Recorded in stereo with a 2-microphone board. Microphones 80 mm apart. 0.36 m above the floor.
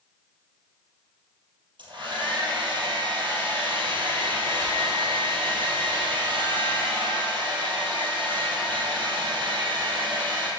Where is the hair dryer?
85° right, 4 m.